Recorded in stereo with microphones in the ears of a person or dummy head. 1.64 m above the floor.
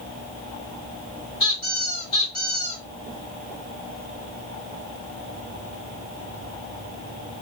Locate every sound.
1.4 s a squeak: 25° left (ahead or behind), 1.5 m